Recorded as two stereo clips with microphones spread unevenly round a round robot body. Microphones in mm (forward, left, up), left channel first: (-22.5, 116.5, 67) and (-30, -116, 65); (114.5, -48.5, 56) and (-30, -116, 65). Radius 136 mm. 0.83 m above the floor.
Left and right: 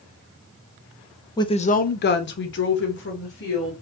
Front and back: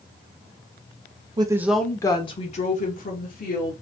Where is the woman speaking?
155° left, 0.5 m; by 3.7 s 45° left, 1.3 m.